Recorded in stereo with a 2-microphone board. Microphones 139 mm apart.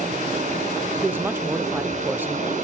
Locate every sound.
0.0 s running water: 60° right (ahead or behind), 4.5 m
1.0 s a woman speaking: 15° right (ahead or behind), 0.5 m